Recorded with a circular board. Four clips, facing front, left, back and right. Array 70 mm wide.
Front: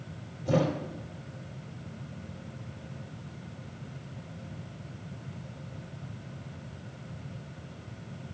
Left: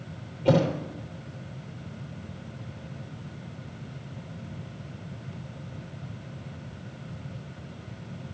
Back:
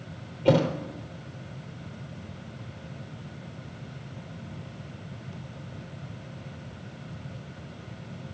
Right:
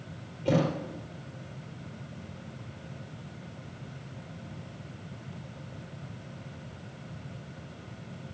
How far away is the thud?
About 4 m.